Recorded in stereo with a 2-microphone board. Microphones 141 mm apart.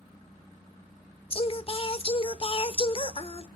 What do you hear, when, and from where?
1.3 s singing: 40° left (ahead or behind), 0.6 m